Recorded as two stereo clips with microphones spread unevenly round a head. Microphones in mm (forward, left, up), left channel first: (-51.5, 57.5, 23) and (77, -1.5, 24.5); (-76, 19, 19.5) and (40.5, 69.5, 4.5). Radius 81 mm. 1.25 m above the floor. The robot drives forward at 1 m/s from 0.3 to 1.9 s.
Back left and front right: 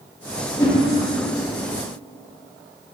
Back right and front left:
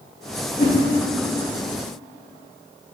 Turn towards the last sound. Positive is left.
turn(degrees=-165)